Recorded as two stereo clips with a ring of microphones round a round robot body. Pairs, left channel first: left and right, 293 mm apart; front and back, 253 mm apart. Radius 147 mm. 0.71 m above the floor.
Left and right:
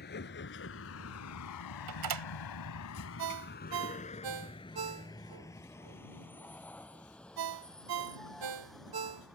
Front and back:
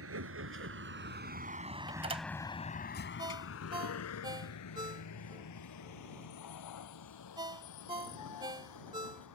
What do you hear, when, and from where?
0.0 s a vehicle: 150° left; by 9.4 s straight ahead
1.9 s a door slam: 110° right
3.2 s a ringtone: 105° right